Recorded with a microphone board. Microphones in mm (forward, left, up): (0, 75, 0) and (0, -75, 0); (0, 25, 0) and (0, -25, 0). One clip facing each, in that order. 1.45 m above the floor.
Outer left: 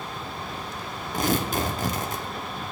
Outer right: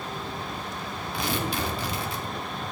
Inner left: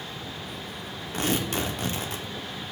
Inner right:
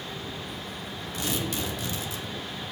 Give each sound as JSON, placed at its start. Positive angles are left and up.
{"t": 1.1, "sound": "tearing paper", "side_deg": 45, "distance_m": 0.8}